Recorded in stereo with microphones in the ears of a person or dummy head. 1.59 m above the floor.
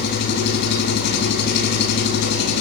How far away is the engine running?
About 3 m.